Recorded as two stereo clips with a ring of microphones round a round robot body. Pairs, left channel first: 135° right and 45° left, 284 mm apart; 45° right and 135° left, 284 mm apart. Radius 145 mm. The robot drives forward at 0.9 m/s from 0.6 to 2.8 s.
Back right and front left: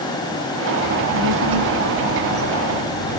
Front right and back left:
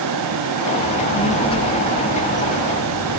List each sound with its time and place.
0.8 s a child speaking: 25° left, 5 m; by 3.2 s 35° left, 3.5 m